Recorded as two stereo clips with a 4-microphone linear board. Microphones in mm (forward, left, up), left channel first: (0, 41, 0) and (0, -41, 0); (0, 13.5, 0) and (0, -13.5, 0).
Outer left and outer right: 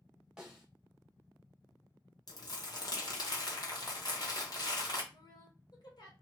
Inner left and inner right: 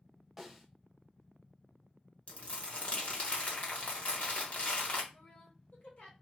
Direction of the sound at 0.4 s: 5° right (ahead or behind).